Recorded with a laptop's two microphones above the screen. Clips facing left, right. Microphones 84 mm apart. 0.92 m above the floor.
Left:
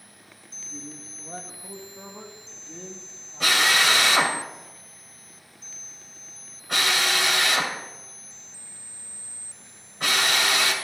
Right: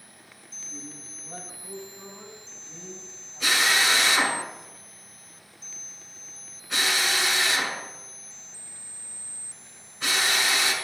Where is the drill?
65° left (ahead or behind), 2.5 m.